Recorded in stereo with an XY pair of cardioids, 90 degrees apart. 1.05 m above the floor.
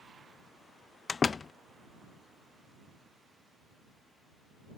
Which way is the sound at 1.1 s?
40° left.